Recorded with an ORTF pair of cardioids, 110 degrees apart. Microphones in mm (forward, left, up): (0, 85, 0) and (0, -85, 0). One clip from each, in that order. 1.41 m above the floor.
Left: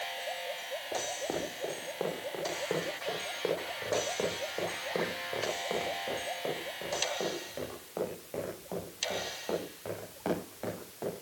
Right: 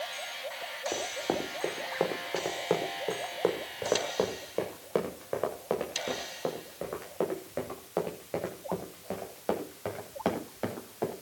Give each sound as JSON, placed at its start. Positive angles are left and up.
{"t": 0.9, "sound": "running footsteps", "azimuth_deg": -45, "distance_m": 5.5}